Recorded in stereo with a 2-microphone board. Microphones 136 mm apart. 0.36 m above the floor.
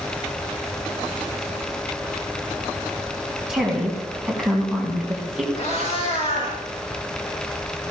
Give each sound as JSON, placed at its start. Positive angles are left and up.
{"t": 3.5, "sound": "a woman speaking", "side_deg": -5, "distance_m": 3.5}
{"t": 5.5, "sound": "a cat meowing", "side_deg": 50, "distance_m": 6.5}